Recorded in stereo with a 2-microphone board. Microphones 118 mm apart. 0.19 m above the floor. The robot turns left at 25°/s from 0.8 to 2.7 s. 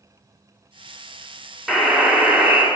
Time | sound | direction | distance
1.7 | a buzzer | centre (ahead or behind) | 2.0 m